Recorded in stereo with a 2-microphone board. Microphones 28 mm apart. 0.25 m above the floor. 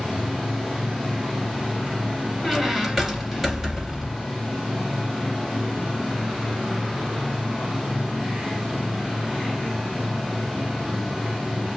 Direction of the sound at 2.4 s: 10° right (ahead or behind).